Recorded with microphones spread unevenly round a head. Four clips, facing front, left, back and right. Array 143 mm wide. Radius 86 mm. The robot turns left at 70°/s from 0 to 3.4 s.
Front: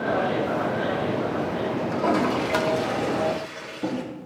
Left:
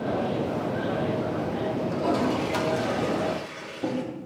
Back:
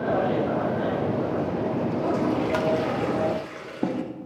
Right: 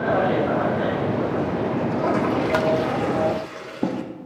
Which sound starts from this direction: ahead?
A toilet flushing, at 1.9 s.